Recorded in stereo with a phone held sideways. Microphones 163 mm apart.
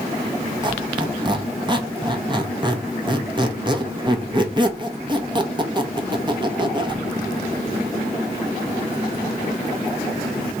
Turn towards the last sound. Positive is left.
turn(degrees=-30)  # may be behind; listen again after turning